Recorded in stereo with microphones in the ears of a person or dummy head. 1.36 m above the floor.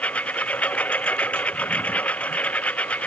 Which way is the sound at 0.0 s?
10° left (ahead or behind).